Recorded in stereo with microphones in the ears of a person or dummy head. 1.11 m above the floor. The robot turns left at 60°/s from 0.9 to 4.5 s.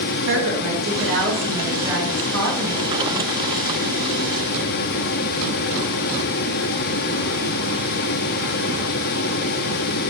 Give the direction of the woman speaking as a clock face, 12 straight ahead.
4 o'clock.